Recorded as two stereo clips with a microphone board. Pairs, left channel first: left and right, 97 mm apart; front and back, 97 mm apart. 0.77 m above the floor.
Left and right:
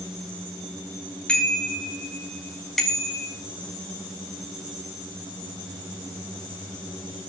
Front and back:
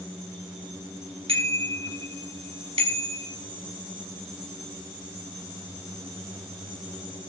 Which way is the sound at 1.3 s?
170° left.